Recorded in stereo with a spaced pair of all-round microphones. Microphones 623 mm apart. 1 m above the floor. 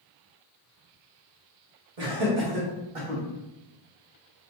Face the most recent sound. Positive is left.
turn(degrees=-60)  # may be behind; listen again after turning